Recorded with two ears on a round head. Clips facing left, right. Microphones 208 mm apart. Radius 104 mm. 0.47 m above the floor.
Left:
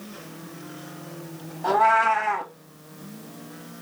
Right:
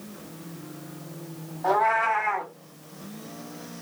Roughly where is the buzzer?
No buzzer in this recording.